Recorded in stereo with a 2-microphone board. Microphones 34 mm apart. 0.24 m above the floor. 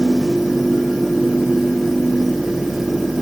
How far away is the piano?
I don't hear a piano.